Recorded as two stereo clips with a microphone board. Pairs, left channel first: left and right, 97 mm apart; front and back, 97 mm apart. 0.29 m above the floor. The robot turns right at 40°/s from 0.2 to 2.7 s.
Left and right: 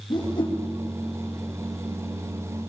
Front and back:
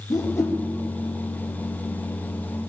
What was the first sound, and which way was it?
A whoosh, 50° left.